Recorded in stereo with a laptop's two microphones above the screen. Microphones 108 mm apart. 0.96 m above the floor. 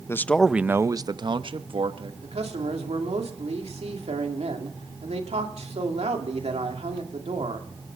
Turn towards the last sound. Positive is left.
turn(degrees=-80)